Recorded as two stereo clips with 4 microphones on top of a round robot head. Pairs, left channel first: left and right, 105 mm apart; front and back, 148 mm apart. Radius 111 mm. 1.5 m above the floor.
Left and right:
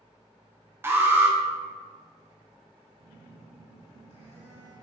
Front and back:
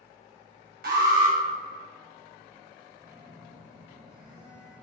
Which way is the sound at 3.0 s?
95° right.